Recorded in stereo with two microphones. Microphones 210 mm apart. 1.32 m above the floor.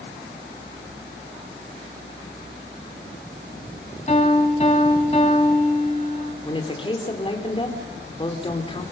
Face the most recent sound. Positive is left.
turn(degrees=25)  # may be behind; listen again after turning